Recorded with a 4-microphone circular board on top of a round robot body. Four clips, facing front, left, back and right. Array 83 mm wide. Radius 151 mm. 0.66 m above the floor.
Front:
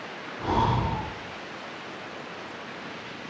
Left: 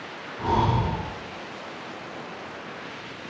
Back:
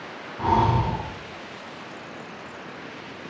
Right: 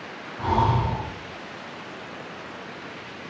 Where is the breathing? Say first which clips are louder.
Right 1 dB, back 4 dB; 165° right, 3.5 m.